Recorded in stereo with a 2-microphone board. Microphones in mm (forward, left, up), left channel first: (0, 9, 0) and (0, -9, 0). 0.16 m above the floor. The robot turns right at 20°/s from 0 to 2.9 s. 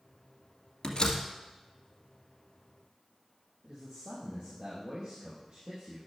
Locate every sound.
0.8 s a door slam: 50° left (ahead or behind), 2 m; by 1.2 s 55° left (ahead or behind), 2 m
3.6 s a man speaking: 55° right (ahead or behind), 4 m